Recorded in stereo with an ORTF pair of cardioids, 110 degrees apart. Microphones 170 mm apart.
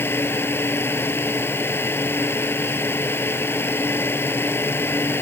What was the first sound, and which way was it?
A fan, 15° left.